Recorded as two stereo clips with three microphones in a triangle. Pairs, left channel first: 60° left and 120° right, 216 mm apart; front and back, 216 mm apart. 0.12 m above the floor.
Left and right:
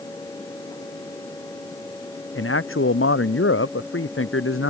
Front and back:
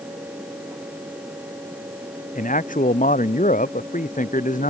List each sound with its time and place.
2.4 s a man speaking: 50° left